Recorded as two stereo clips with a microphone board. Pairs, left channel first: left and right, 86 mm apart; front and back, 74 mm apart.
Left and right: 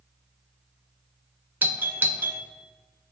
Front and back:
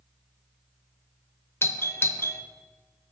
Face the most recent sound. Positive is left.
turn(degrees=-35)